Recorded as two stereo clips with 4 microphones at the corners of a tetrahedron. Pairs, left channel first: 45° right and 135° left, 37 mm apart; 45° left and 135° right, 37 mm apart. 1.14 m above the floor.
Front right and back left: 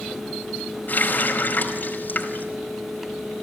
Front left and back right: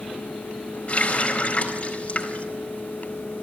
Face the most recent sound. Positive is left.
turn(degrees=-10)